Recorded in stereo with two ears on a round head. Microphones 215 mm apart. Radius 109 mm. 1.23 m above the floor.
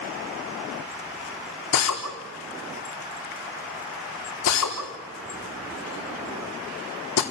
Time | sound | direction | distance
1.7 | a drill | 80° left | 4 m